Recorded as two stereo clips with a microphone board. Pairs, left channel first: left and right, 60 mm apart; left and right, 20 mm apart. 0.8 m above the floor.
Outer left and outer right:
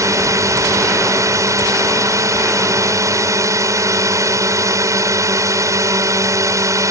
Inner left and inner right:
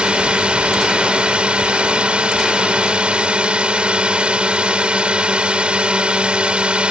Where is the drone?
60° right (ahead or behind).